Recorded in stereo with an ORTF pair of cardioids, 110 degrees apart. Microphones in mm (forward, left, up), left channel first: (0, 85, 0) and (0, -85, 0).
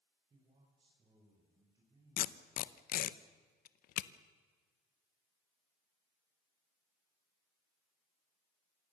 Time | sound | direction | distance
0.3 | a man speaking | 35° right | 5 m
2.2 | tape being pulled | 60° left | 0.9 m